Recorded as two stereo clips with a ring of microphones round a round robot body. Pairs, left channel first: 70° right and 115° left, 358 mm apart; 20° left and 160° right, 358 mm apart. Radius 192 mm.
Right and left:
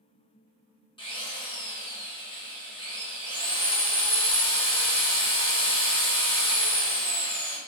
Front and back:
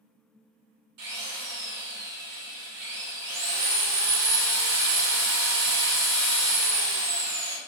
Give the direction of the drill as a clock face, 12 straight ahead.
5 o'clock.